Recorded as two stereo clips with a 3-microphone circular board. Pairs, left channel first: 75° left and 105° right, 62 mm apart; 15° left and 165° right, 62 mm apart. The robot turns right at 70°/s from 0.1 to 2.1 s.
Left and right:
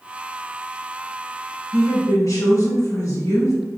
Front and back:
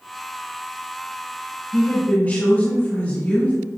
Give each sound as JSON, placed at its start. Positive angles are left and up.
{"t": 1.7, "sound": "a woman speaking", "azimuth_deg": 50, "distance_m": 1.8}